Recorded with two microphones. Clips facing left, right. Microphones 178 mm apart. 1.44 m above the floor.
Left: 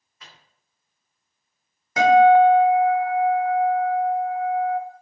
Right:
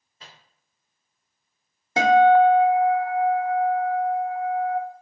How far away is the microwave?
About 0.6 m.